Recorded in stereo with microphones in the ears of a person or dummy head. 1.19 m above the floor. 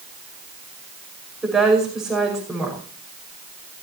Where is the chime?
I don't hear a chime.